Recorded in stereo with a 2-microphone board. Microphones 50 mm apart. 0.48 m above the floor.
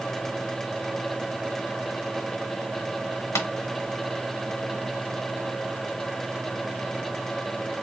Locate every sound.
3.4 s tapping: 75° left (ahead or behind), 1.0 m